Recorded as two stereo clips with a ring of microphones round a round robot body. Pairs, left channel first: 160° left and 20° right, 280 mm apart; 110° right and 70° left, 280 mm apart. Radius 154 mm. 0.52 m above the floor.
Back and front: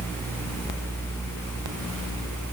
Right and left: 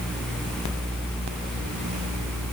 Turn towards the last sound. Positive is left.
No sound to turn to.